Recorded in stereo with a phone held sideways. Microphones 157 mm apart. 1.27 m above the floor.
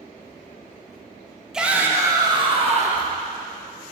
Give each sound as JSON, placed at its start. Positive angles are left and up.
{"t": 1.5, "sound": "a shout", "side_deg": -5, "distance_m": 1.5}